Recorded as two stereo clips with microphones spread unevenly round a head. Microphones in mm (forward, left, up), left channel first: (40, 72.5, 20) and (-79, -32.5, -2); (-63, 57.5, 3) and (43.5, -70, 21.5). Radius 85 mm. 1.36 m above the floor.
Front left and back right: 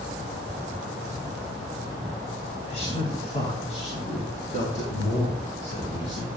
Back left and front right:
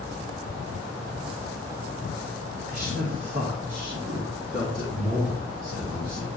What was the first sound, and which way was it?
A man speaking, 15° right.